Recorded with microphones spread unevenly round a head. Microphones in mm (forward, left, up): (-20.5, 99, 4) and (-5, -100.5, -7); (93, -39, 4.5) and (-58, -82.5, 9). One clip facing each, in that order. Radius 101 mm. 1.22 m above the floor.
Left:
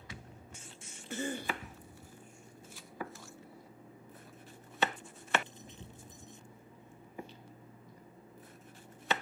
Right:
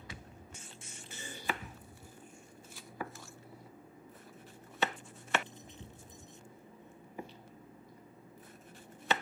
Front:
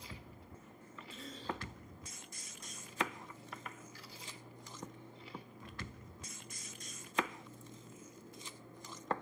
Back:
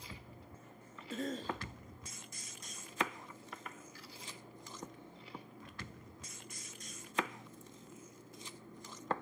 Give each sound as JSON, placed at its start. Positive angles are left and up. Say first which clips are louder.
{"t": 1.1, "sound": "a cough", "louder": "left 5 dB, back 6 dB", "azimuth_deg": 135, "distance_m": 2.0}